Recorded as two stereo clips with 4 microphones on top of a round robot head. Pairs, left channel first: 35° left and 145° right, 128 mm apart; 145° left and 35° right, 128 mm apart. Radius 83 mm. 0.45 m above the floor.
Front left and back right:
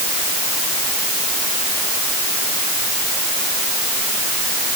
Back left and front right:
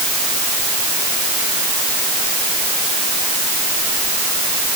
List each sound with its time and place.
Only background noise.